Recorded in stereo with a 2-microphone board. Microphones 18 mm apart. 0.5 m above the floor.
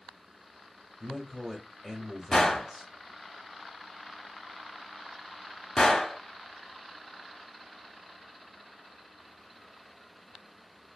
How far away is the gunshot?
About 0.8 m.